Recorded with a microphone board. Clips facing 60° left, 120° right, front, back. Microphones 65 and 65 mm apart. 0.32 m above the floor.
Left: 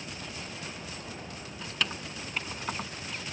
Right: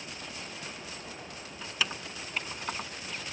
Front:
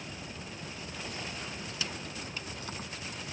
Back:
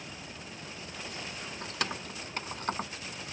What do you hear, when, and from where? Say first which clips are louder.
1.6 s keys jangling: even, back 4 dB; 155° left; by 2.9 s 145° left